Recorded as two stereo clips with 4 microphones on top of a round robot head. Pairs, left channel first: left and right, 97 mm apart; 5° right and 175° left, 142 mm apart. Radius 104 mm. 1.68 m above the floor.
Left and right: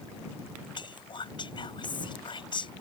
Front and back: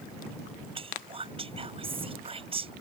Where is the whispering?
125° left.